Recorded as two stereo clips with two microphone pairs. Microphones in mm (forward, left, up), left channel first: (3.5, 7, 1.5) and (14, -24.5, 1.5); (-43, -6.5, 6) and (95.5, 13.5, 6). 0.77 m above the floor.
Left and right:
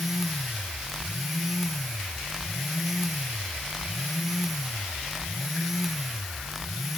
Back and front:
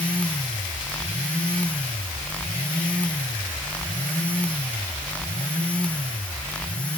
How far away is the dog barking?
I don't hear a dog barking.